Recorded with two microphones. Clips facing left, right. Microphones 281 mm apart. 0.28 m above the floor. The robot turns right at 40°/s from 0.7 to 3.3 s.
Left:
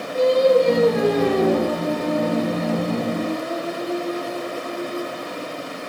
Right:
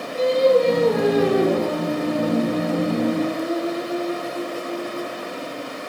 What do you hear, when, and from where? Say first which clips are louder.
0.1 s singing: left 1 dB; 165° left, 1.2 m; by 5.2 s 90° right, 1.2 m